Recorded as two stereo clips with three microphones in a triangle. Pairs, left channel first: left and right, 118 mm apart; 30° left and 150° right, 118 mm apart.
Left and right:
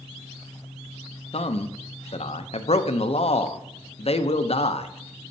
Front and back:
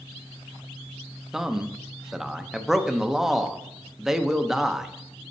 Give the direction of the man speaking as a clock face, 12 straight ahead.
8 o'clock.